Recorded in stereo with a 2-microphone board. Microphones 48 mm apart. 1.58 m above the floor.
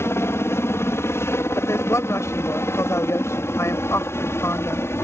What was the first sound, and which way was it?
A helicopter, 65° left (ahead or behind).